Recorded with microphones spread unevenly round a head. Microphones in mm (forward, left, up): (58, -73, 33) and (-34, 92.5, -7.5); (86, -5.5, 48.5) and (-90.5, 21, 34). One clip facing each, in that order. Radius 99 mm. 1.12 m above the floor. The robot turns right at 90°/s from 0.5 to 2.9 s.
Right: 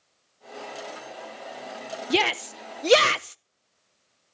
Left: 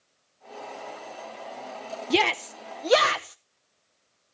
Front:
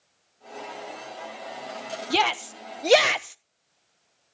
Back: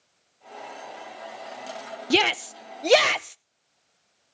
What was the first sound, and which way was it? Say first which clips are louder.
A shout: left 1 dB, back 3 dB; 175° right.